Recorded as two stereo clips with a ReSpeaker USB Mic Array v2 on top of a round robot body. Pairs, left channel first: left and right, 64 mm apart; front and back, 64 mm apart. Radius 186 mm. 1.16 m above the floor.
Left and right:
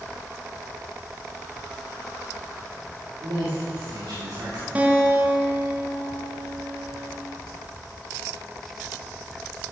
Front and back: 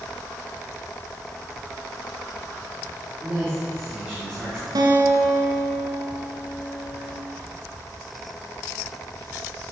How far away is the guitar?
About 1.7 m.